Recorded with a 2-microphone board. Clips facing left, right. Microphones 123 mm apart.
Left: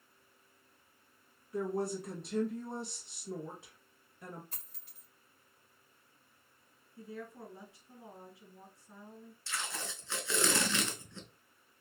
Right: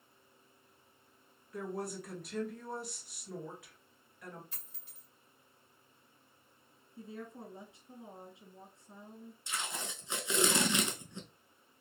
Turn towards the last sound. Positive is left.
turn(degrees=-20)  # may be behind; listen again after turning